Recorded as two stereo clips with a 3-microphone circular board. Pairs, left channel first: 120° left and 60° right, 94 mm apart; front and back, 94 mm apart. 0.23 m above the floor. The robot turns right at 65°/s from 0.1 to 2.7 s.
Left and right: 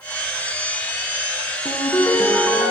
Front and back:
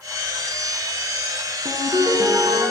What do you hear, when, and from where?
1.6 s a ringtone: 150° left, 1.5 m; by 2.7 s 140° right, 1.5 m